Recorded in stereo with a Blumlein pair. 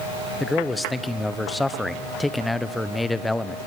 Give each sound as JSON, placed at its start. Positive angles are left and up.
{"t": 0.4, "sound": "a man speaking", "azimuth_deg": 5, "distance_m": 1.1}